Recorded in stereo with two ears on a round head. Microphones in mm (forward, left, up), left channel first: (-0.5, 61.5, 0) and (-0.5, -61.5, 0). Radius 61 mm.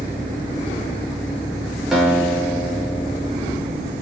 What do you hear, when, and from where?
1.9 s a guitar: centre (ahead or behind), 5 m